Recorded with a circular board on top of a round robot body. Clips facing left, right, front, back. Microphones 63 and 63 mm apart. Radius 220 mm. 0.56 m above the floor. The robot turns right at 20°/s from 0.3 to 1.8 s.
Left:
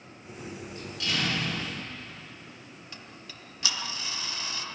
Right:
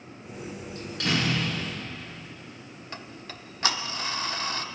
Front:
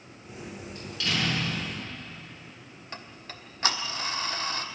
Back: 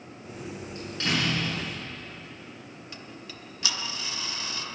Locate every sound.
0.8 s a door slam: 125° right, 7 m; by 1.7 s 105° right, 7 m
2.9 s ticking: 45° right, 1.1 m